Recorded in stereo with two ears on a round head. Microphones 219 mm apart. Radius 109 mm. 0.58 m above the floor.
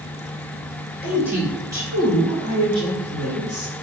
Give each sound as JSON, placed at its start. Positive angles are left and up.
{"t": 1.0, "sound": "a woman speaking", "side_deg": -5, "distance_m": 2.0}